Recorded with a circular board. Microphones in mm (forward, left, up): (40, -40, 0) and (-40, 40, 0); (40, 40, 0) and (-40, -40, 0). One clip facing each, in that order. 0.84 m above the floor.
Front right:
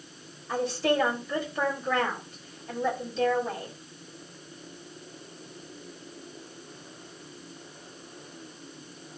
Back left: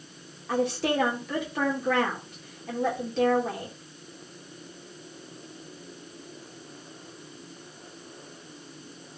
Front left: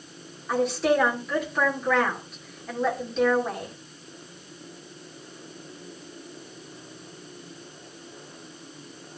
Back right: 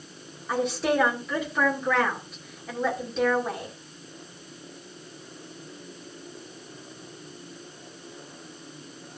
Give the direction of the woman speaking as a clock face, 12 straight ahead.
8 o'clock.